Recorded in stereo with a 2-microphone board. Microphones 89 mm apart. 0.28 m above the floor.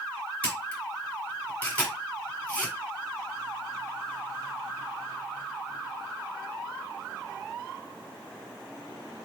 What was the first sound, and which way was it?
A camera shutter, 20° left (ahead or behind).